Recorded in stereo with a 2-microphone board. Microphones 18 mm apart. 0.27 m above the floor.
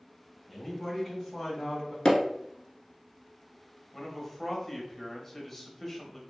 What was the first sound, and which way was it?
A man speaking, 20° left (ahead or behind).